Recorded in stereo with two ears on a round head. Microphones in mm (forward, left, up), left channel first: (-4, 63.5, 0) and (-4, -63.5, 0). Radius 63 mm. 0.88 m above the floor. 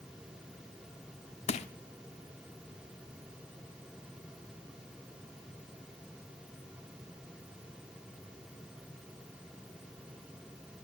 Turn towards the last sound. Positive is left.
turn(degrees=50)  # may be behind; listen again after turning